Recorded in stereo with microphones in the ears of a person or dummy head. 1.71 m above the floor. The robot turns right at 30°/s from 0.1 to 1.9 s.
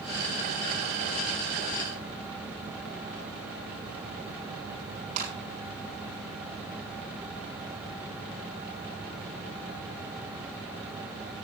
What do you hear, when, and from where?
5.2 s a clap: 45° right (ahead or behind), 9 m